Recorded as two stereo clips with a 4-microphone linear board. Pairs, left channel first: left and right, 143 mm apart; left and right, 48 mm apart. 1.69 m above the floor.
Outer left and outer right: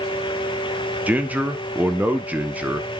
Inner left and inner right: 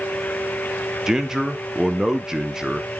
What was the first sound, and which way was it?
A man speaking, 10° right (ahead or behind).